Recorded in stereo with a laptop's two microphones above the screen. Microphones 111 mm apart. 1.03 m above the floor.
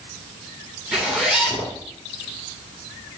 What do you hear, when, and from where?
0.9 s a zipper: 5° right (ahead or behind), 1.9 m